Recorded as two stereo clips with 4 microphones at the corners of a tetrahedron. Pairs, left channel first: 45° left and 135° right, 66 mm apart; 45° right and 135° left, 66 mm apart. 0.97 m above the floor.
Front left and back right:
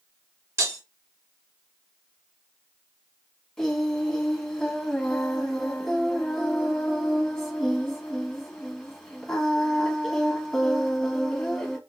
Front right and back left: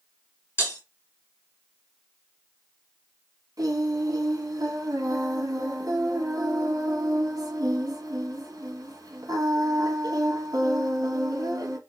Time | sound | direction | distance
0.6 | breaking glass | 90° right | 1.9 m
3.6 | singing | 125° left | 1.0 m